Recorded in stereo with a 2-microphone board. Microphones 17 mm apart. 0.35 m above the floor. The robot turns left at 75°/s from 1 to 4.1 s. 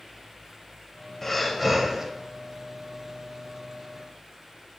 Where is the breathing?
25° left, 0.6 m; by 2.0 s 40° right, 0.6 m.